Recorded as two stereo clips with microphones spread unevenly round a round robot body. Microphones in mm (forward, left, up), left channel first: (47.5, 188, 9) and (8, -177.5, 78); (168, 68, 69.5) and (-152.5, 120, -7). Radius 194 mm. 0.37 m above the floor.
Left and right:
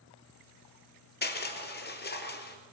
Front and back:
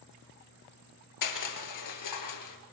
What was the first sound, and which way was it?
Crushing, 20° left.